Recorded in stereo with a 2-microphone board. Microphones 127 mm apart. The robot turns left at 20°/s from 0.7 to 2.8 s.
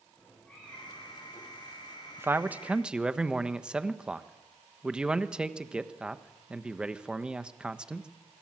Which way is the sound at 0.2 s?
10° left (ahead or behind).